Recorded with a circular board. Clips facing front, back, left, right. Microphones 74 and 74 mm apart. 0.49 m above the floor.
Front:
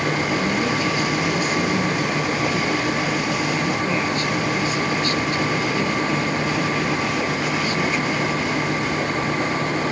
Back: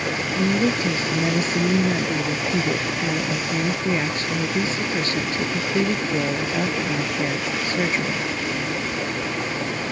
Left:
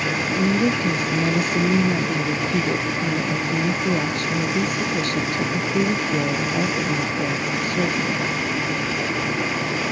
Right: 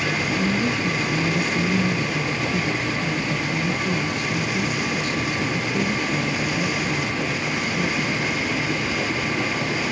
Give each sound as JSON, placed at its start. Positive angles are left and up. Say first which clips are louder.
{"t": 0.4, "sound": "a woman speaking", "louder": "even, left 6 dB", "azimuth_deg": 115}